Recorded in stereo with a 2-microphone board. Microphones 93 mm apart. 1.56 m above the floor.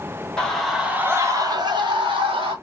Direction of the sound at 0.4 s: 10° left (ahead or behind).